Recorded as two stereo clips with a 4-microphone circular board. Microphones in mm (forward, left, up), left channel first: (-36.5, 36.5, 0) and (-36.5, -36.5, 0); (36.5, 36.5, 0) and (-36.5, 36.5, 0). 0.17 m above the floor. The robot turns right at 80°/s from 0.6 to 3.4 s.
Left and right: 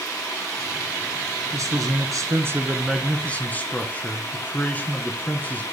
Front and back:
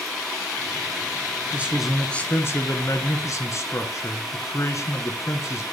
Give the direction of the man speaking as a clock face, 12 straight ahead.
4 o'clock.